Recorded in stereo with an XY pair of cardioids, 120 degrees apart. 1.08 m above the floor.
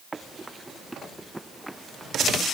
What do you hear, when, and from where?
0.1 s running footsteps: 20° right; by 2.3 s straight ahead